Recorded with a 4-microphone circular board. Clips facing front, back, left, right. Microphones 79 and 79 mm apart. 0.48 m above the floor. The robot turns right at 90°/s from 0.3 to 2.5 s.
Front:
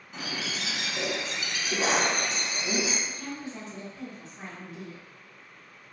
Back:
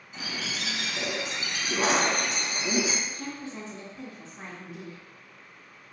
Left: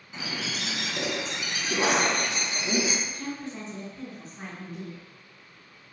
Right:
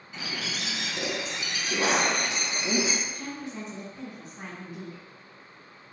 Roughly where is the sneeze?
I don't hear a sneeze.